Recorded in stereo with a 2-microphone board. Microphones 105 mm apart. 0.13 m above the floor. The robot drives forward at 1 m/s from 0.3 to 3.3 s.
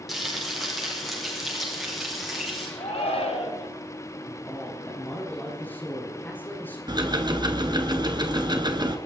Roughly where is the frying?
Centre.